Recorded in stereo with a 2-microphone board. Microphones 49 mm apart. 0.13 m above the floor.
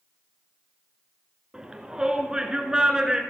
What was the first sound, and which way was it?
A shout, 15° right (ahead or behind).